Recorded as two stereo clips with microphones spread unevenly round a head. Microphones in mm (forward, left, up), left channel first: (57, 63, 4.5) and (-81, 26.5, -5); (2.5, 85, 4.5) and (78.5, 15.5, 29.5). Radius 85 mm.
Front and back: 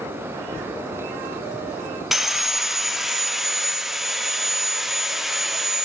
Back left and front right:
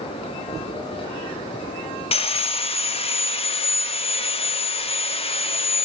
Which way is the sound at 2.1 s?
105° left.